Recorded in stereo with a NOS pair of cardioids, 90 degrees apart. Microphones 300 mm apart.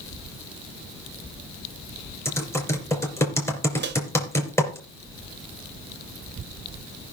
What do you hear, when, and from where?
2.2 s typing on a keyboard: 10° left, 3.5 m
3.8 s a microwave: 35° right, 1.1 m